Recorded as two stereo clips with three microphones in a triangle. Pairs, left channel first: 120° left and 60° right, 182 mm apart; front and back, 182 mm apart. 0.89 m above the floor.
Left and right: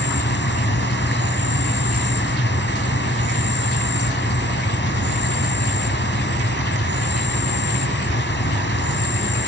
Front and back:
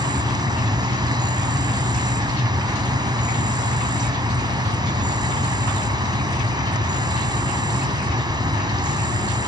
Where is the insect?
115° left.